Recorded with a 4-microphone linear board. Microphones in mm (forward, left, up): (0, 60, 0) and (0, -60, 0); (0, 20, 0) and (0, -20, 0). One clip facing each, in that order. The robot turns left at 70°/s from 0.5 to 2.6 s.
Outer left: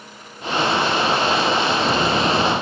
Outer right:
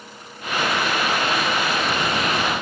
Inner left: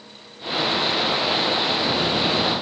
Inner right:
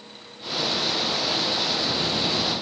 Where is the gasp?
I don't hear a gasp.